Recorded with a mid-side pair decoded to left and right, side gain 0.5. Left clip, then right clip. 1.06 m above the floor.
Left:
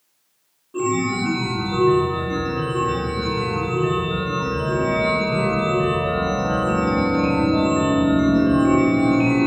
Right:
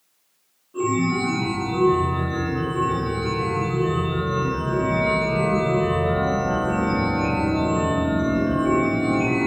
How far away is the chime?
About 0.8 m.